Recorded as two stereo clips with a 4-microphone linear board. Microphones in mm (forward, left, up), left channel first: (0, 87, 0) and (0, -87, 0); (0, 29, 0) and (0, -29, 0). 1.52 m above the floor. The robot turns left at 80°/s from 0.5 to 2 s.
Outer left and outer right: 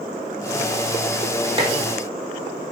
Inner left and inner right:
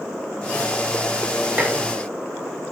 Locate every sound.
1.6 s dishes clattering: 30° right (ahead or behind), 0.7 m; by 1.8 s 35° right (ahead or behind), 0.7 m